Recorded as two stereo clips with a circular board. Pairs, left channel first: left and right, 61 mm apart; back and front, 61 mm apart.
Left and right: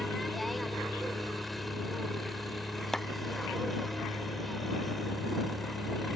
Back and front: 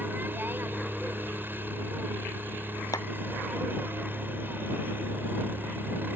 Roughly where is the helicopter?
Ahead.